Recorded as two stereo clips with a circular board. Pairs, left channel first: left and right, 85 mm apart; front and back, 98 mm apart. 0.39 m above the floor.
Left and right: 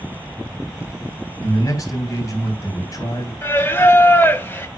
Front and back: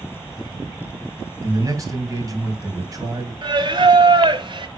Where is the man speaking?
130° left, 3 m.